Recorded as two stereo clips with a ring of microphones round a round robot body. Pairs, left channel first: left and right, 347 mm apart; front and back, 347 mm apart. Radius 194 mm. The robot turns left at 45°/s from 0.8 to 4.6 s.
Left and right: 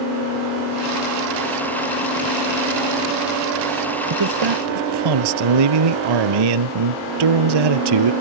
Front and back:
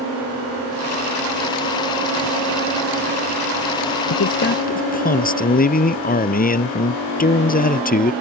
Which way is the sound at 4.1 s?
45° right.